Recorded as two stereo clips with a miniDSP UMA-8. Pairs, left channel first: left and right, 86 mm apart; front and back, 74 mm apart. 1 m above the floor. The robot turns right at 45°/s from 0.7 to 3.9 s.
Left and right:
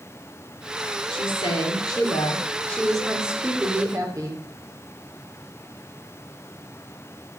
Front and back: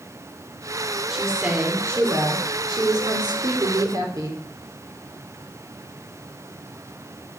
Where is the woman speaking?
95° left, 3.5 m; by 4.4 s 140° right, 3.5 m.